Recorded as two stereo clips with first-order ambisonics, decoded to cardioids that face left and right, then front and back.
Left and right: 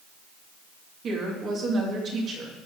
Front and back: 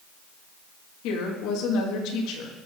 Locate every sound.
1.0 s a woman speaking: 30° right, 2.5 m